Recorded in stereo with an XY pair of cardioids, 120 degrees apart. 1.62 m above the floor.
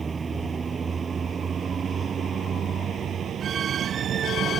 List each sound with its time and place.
0.0 s a vehicle: 30° right; by 4.6 s 55° right